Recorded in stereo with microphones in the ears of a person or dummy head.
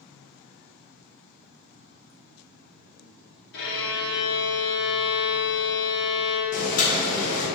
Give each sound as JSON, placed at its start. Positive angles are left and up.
{"t": 3.5, "sound": "a violin", "side_deg": 50, "distance_m": 0.9}
{"t": 6.5, "sound": "boiling", "side_deg": 40, "distance_m": 0.6}